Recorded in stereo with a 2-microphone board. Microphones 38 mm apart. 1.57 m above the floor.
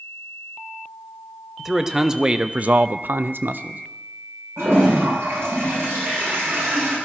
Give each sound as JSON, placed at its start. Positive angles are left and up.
{"t": 1.6, "sound": "a man speaking", "side_deg": -10, "distance_m": 1.2}
{"t": 4.6, "sound": "a toilet flushing", "side_deg": -85, "distance_m": 8.0}